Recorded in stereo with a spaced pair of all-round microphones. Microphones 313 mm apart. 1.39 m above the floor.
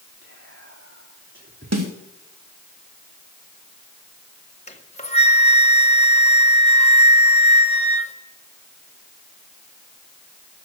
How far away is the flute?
About 1.1 m.